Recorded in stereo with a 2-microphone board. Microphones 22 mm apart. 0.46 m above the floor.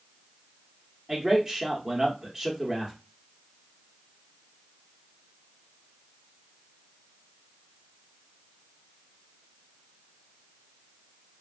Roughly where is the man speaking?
Right.